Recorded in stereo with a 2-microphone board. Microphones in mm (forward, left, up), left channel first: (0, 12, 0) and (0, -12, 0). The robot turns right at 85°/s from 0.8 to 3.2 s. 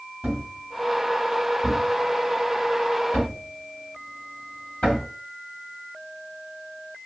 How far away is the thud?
About 1.4 m.